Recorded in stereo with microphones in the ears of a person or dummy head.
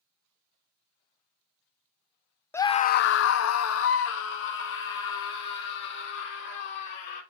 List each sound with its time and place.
2.5 s a scream: 5° left (ahead or behind), 0.7 m; by 7.2 s 75° left (ahead or behind), 5 m